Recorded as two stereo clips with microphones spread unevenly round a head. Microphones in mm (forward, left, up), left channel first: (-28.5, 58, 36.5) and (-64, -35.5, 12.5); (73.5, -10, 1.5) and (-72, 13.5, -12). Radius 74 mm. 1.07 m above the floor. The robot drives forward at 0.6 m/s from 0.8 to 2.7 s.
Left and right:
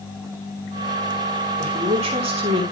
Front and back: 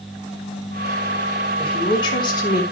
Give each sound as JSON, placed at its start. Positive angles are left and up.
{"t": 1.6, "sound": "a woman speaking", "azimuth_deg": -70, "distance_m": 4.5}